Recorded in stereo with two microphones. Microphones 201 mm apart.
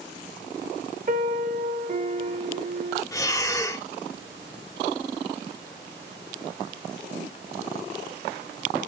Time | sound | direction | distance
1.1 | a piano | 40° right (ahead or behind) | 0.8 m
3.1 | breathing | 15° left (ahead or behind) | 1.2 m